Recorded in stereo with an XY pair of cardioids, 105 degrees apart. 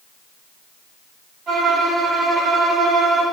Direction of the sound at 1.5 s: 70° right.